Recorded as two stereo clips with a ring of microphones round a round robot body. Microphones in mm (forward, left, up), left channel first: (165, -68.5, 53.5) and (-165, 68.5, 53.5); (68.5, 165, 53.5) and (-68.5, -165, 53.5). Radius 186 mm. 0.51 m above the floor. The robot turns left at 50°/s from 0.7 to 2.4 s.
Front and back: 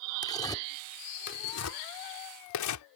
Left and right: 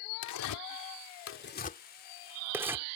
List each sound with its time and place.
0.2 s tearing paper: 55° left; by 2.9 s 30° right